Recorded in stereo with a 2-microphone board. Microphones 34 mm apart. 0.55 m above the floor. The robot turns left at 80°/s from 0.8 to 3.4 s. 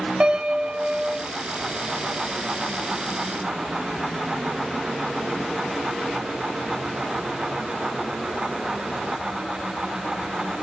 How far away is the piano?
About 2 m.